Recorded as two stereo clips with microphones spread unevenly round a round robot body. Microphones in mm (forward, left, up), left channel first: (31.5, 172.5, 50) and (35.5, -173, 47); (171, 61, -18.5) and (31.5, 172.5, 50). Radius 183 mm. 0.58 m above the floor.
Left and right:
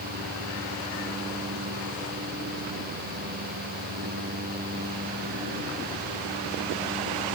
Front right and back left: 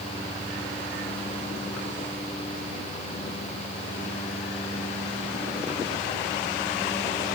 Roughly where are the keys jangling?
No keys jangling in this recording.